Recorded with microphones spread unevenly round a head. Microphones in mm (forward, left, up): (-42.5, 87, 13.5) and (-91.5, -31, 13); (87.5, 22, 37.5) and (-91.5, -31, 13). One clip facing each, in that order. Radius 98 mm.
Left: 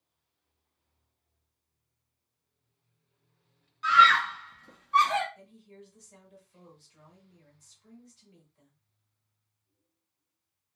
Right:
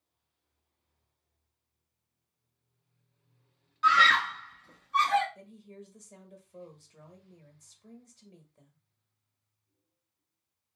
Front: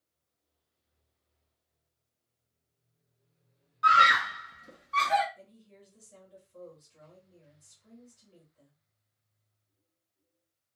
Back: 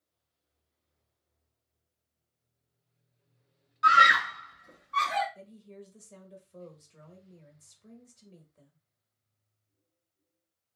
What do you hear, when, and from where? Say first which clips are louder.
3.8 s a scream: left 3 dB, back 1 dB; 110° right, 0.8 m; by 5.2 s 60° left, 1.3 m
5.3 s a woman speaking: right 3 dB, back 7 dB; 150° right, 1.1 m